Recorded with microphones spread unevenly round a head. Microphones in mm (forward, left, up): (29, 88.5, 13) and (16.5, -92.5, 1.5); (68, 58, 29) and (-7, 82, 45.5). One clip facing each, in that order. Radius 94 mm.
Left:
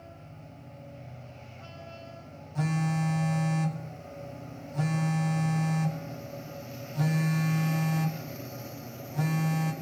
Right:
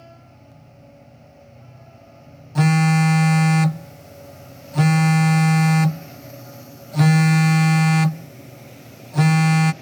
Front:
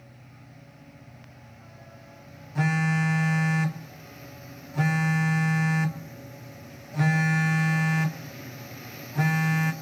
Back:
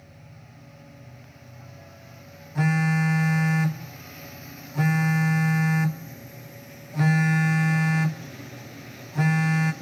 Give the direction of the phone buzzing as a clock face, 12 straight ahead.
4 o'clock.